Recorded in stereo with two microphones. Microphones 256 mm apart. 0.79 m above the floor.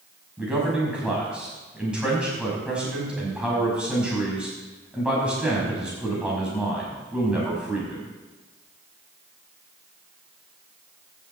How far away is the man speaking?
About 5.5 m.